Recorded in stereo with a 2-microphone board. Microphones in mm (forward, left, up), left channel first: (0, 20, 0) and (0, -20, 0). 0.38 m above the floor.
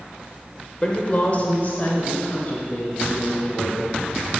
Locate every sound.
0.8 s a woman speaking: 25° left (ahead or behind), 1.0 m; by 4.3 s 45° left (ahead or behind), 3 m